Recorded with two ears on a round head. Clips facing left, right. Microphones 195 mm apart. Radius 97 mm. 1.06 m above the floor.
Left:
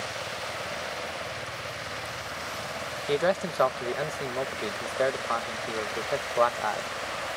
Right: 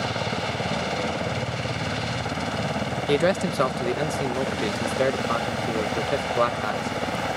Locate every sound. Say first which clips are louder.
0.0 s a helicopter: right 9 dB; 75° right (ahead or behind)
3.1 s a man speaking: right 4 dB; 35° right (ahead or behind)